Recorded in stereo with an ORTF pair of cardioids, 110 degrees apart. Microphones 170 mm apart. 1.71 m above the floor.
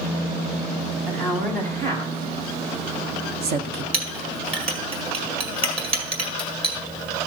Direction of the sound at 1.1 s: 60° right.